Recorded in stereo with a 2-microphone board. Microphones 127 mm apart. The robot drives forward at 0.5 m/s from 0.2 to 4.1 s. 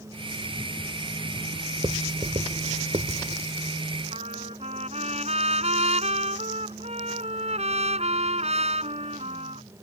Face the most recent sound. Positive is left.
turn(degrees=-55)  # may be behind; listen again after turning